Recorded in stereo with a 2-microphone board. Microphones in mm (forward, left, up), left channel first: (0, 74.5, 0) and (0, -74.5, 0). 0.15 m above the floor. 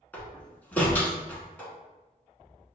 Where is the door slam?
10° left (ahead or behind), 1.0 m.